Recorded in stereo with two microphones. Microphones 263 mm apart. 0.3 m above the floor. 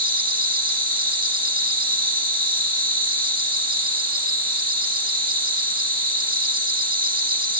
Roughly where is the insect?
Centre.